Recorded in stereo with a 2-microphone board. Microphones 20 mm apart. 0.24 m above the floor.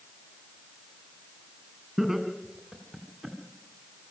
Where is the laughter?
15° right (ahead or behind), 2.5 m; by 3.4 s 10° left (ahead or behind), 2.5 m.